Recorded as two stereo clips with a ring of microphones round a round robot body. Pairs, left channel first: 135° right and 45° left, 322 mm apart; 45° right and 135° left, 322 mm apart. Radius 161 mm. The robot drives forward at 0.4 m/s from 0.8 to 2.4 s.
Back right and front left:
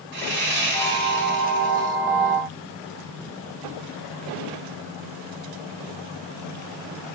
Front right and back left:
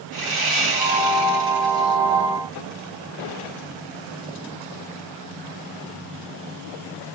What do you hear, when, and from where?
0.1 s sawing: 105° left, 3.5 m; by 2.0 s 110° left, 4 m